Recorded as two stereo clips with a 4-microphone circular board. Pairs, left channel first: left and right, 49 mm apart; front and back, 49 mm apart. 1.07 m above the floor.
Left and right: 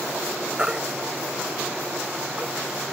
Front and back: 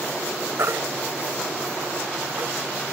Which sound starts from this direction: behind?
A baby crying, at 0.6 s.